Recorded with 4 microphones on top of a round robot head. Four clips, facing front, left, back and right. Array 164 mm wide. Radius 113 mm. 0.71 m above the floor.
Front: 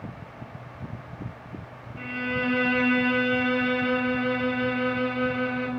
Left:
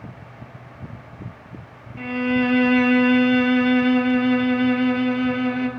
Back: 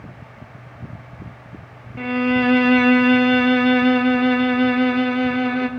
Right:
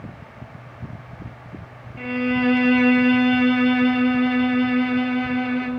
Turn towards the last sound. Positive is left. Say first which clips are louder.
# even, back 11 dB
turn(degrees=175)